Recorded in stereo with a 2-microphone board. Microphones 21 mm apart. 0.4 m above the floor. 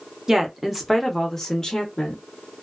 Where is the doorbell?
No doorbell in this recording.